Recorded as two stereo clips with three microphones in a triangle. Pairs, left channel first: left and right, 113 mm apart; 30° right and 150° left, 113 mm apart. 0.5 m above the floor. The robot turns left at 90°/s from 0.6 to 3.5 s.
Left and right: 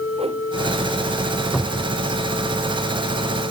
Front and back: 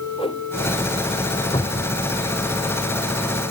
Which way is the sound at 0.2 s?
65° right.